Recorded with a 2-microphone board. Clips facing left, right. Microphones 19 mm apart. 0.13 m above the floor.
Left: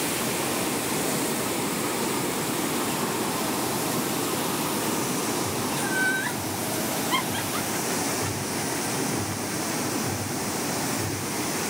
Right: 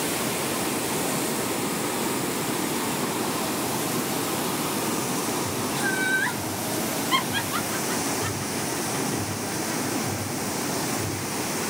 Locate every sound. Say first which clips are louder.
5.8 s laughter: right 2 dB; 30° right (ahead or behind), 2 m; by 9.8 s 15° right (ahead or behind), 2 m